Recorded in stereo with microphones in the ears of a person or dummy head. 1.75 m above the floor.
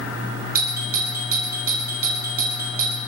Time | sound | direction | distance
0.6 | a doorbell | 50° right (ahead or behind) | 2.5 m